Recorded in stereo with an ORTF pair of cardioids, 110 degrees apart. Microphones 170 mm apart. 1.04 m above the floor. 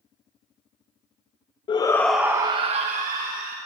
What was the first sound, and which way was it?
A shout, 30° left.